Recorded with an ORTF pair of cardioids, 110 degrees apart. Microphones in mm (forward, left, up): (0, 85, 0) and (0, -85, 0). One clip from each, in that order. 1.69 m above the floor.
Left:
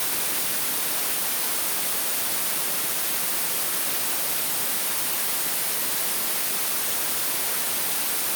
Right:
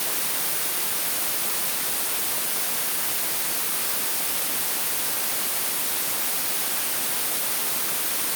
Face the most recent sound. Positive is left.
No sound to turn to.